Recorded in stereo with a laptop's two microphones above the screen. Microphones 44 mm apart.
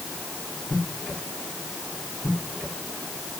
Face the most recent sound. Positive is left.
No sound to turn to.